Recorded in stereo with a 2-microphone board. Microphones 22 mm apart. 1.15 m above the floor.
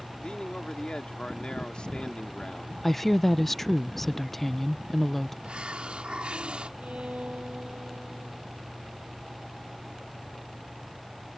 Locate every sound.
0.2 s a man speaking: 55° left (ahead or behind)
2.8 s a woman speaking: 10° left (ahead or behind)
5.4 s a hiss: 65° right (ahead or behind)
6.8 s a violin: 70° right (ahead or behind)